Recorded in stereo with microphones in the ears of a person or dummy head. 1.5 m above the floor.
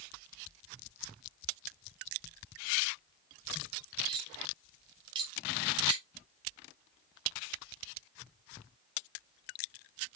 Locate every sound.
4.1 s cutlery clinking: 25° right (ahead or behind), 2.5 m